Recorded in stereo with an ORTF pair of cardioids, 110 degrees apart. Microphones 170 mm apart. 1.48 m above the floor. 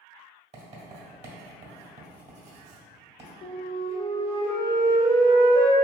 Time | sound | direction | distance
0.5 | writing | 40° right | 1.5 m
3.4 | a flute | 60° left | 1.0 m